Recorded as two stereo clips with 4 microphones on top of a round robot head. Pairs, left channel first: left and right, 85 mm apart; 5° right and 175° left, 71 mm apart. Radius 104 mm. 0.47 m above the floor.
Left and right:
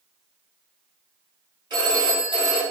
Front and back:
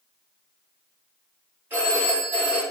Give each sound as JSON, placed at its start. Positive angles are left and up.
{"t": 1.7, "sound": "a phone ringing", "azimuth_deg": -120, "distance_m": 3.5}